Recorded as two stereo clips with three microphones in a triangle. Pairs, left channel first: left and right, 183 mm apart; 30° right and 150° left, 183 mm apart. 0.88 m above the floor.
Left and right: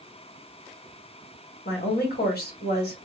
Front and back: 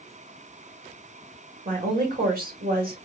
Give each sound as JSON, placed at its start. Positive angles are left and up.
{"t": 1.6, "sound": "a woman speaking", "azimuth_deg": 115, "distance_m": 1.9}